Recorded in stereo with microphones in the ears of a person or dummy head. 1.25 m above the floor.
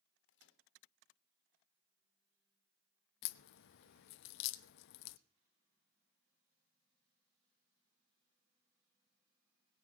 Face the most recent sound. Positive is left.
turn(degrees=55)  # may be behind; listen again after turning